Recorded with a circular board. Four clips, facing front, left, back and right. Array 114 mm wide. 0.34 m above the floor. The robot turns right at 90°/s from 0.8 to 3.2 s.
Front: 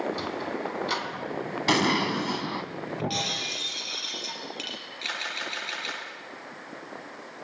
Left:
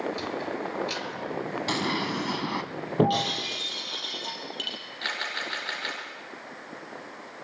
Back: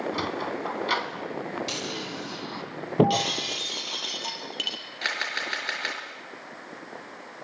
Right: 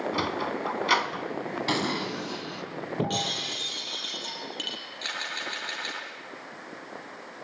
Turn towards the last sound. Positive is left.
turn(degrees=160)